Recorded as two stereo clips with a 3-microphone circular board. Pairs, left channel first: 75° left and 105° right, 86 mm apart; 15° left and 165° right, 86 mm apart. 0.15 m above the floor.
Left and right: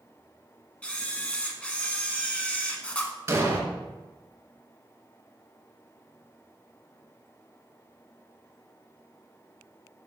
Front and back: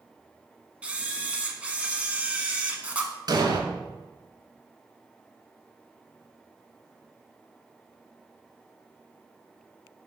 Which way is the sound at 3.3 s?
155° right.